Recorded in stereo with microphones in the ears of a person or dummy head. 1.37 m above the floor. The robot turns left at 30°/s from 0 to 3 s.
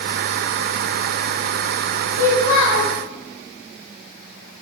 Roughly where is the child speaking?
Centre.